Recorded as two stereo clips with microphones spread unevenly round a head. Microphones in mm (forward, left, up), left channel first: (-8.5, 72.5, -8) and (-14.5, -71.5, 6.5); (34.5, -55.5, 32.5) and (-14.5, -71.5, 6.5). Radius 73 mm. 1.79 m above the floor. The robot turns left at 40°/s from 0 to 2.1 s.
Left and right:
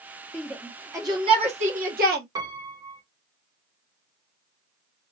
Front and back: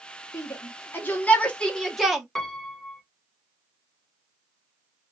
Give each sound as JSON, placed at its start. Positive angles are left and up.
{"t": 0.3, "sound": "a shout", "azimuth_deg": 0, "distance_m": 1.7}
{"t": 2.4, "sound": "a piano", "azimuth_deg": -40, "distance_m": 1.0}